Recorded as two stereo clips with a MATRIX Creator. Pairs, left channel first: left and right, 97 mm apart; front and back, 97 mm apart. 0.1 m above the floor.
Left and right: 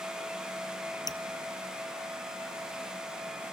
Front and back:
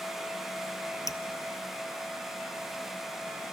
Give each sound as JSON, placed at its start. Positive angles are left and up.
{"t": 1.1, "sound": "dripping", "azimuth_deg": 50, "distance_m": 0.9}